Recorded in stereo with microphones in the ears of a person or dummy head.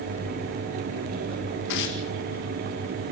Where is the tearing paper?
60° left (ahead or behind), 1.9 m.